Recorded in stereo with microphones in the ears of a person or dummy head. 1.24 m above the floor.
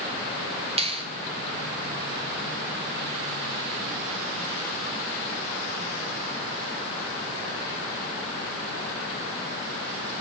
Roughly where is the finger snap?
Right.